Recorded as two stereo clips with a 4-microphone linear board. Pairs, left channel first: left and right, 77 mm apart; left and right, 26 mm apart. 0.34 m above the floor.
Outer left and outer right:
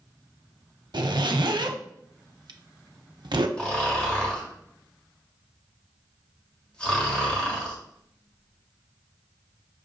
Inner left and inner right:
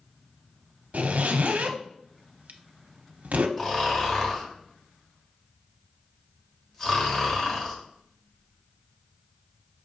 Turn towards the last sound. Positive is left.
turn(degrees=15)  # may be behind; listen again after turning